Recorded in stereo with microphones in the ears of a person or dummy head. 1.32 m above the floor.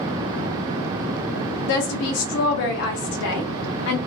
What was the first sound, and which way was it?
A woman speaking, 75° left (ahead or behind).